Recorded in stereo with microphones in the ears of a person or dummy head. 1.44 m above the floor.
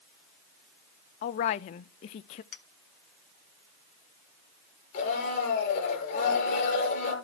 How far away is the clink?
About 1.3 m.